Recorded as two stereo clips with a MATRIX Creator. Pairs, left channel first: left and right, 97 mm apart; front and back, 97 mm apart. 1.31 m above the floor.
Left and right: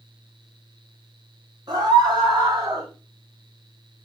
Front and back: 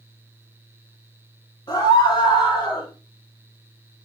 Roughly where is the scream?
Ahead right.